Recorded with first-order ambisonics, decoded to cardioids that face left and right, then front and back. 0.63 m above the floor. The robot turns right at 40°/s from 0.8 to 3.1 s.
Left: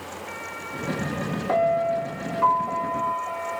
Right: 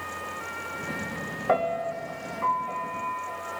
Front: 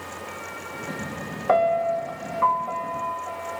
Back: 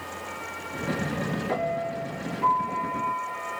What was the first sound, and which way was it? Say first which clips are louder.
A piano: left 4 dB, front 11 dB; 20° right.